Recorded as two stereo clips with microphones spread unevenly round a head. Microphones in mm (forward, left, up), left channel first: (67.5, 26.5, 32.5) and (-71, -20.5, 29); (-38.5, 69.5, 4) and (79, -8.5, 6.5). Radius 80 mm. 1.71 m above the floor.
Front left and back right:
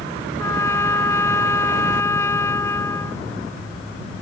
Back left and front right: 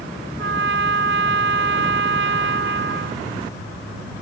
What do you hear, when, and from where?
0.4 s a trumpet: 55° right